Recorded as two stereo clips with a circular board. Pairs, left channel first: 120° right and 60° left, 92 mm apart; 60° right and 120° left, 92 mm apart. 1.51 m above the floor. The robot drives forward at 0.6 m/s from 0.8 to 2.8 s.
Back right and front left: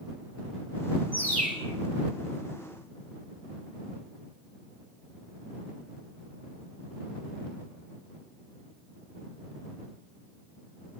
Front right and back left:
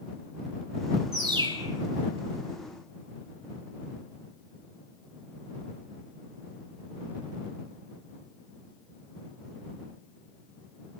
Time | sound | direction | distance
1.1 | a bird | 165° left | 5.5 m